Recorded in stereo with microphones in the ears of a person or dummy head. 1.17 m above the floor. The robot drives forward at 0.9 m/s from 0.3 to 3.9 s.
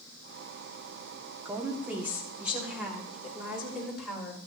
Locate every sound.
1.4 s a woman speaking: 15° right (ahead or behind), 1.9 m; by 4.4 s 5° right (ahead or behind), 4 m